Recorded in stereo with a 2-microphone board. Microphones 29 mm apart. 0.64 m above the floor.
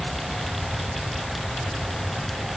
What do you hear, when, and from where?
Only background noise.